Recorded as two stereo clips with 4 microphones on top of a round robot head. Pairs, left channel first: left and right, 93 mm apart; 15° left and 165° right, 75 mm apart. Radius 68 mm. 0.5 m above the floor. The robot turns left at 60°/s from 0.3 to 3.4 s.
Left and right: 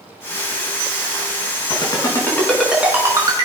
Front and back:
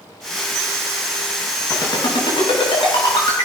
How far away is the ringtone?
About 5 m.